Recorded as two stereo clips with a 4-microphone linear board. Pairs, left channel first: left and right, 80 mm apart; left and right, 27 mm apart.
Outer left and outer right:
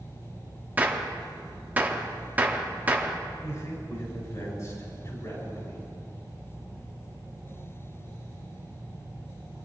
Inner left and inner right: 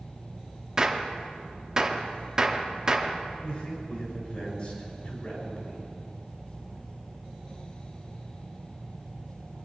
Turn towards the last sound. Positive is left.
turn(degrees=40)  # may be behind; listen again after turning